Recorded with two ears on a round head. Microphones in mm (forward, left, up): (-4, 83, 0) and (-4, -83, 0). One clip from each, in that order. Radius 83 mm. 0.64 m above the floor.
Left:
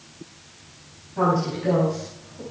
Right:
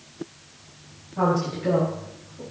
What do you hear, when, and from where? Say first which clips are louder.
1.2 s a woman speaking: left 1 dB; 10° left (ahead or behind), 5.5 m; by 2.4 s 5° left (ahead or behind), 6 m